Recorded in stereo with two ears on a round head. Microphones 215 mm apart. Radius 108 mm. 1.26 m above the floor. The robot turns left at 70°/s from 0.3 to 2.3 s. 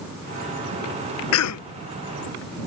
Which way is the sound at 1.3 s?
60° left (ahead or behind).